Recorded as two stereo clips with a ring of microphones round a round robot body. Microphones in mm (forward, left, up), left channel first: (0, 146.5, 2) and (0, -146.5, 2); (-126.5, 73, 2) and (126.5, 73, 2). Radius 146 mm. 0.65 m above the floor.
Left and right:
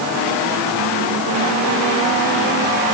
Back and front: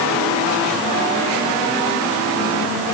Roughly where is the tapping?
I don't hear tapping.